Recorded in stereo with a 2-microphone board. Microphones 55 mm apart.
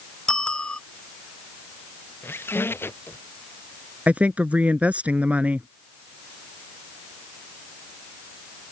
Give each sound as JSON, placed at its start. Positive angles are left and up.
{"t": 0.3, "sound": "a bicycle bell", "side_deg": 15}
{"t": 2.2, "sound": "a squeak", "side_deg": 45}
{"t": 4.1, "sound": "a woman speaking", "side_deg": -25}